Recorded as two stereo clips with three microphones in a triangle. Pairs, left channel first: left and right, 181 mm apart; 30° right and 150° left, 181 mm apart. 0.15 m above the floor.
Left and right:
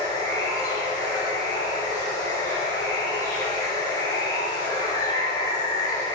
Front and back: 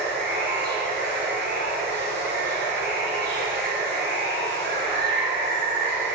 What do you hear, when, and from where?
0.0 s running water: 155° left, 1.2 m